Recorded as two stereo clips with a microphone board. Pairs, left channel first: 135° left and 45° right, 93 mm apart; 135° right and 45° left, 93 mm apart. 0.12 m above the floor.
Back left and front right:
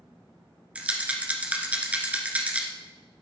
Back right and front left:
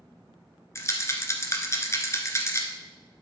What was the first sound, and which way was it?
A rattle, 110° right.